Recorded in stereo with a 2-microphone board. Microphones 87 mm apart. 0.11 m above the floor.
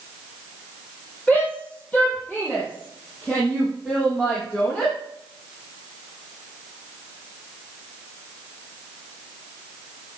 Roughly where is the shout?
Centre.